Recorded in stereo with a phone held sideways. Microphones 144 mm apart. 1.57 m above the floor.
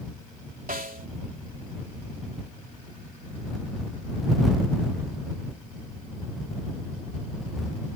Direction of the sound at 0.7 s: 85° right.